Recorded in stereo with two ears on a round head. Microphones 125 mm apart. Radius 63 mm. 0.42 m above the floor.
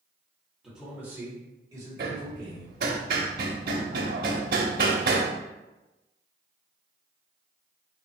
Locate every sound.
0.6 s a man speaking: 5° right (ahead or behind), 1.4 m; by 2.9 s 35° right (ahead or behind), 3 m
2.0 s hammering: 70° right (ahead or behind), 0.7 m